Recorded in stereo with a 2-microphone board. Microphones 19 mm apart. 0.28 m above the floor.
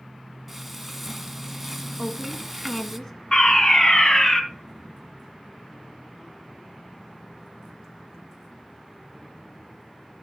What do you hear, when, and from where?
0.5 s frying: 5° right (ahead or behind), 1.6 m
2.0 s a woman speaking: 20° left (ahead or behind), 2 m
3.3 s a fire alarm: 40° left (ahead or behind), 3.5 m